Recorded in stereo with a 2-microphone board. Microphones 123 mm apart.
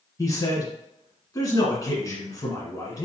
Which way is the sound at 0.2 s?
30° left (ahead or behind).